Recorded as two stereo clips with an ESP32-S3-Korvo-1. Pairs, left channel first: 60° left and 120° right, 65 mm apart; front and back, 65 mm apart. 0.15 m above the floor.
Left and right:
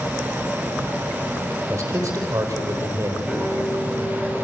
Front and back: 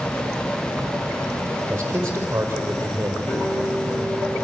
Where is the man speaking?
130° right, 4.5 m.